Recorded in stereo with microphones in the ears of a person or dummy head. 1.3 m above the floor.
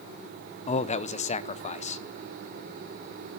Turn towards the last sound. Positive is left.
turn(degrees=35)  # may be behind; listen again after turning